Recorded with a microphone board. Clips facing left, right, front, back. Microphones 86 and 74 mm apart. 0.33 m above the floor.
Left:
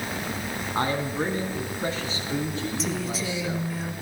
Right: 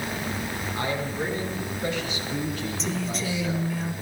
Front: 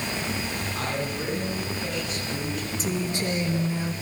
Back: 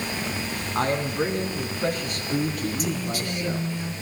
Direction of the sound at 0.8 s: 135° left.